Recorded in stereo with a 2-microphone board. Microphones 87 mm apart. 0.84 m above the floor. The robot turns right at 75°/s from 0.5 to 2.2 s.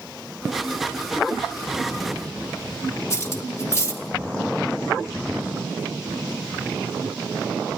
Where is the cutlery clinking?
35° left (ahead or behind), 1.1 m.